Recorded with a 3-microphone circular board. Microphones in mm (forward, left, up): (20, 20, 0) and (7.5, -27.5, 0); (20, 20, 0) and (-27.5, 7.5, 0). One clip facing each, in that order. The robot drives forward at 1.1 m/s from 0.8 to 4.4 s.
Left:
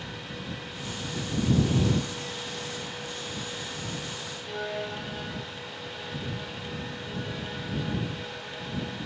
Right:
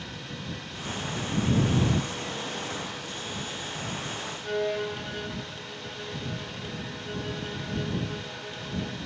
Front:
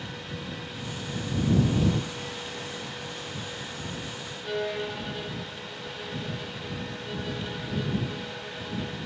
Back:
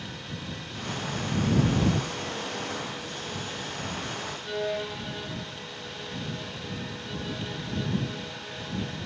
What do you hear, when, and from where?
4.4 s a violin: 65° right, 7.5 m